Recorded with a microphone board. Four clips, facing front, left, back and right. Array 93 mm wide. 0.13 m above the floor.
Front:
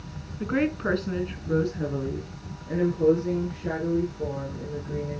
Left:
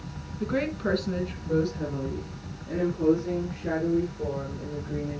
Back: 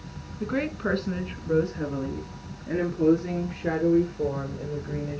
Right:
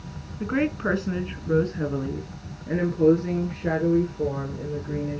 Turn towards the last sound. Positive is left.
turn(degrees=-140)